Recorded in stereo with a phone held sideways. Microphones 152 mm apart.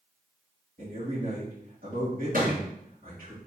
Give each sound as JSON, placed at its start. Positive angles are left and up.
{"t": 0.8, "sound": "a man speaking", "side_deg": -70, "distance_m": 2.5}
{"t": 2.3, "sound": "a thud", "side_deg": -65, "distance_m": 2.5}